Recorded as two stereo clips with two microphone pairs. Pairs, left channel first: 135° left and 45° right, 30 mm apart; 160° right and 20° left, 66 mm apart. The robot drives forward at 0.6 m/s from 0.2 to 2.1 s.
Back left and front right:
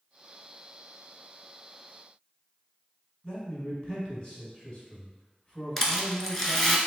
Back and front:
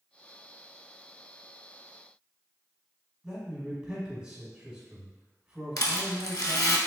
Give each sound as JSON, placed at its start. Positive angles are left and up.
{"t": 3.2, "sound": "a man speaking", "azimuth_deg": 90, "distance_m": 1.5}
{"t": 5.8, "sound": "a rattle", "azimuth_deg": -145, "distance_m": 0.7}